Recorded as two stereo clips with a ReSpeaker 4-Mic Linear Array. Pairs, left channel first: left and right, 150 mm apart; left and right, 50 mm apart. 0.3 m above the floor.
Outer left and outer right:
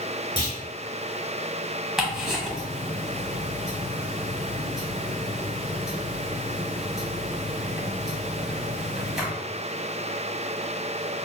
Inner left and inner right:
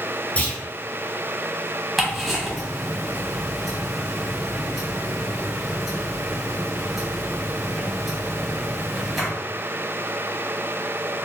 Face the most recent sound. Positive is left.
turn(degrees=-5)  # may be behind; listen again after turning